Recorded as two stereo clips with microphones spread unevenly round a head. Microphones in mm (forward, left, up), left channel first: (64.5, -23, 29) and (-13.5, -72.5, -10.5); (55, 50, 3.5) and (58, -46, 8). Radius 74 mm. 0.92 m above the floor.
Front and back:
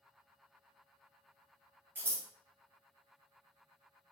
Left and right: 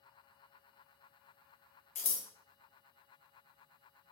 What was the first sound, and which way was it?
Scissors, 130° left.